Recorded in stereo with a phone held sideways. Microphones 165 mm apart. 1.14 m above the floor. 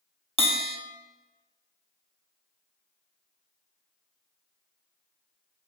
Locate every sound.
0.4 s a bell: 35° left (ahead or behind), 0.5 m